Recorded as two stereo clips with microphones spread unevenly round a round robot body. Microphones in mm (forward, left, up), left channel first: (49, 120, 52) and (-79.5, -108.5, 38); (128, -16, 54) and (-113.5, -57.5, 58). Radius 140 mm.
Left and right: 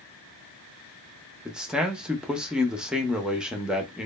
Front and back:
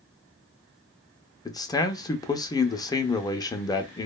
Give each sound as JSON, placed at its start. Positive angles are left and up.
{"t": 1.4, "sound": "a man speaking", "azimuth_deg": -45, "distance_m": 0.5}